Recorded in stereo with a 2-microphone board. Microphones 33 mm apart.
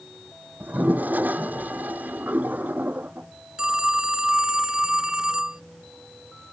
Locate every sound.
0.6 s a toilet flushing: 60° right (ahead or behind)
3.6 s a phone ringing: 25° right (ahead or behind)